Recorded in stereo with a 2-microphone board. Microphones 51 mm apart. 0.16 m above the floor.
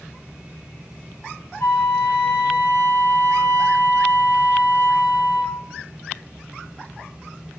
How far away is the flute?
About 1.3 m.